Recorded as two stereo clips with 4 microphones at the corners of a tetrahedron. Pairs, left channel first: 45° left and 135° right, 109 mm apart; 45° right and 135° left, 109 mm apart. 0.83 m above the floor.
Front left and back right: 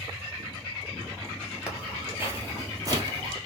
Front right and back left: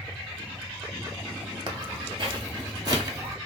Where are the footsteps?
150° left, 1.0 m; by 3.4 s 175° right, 1.5 m.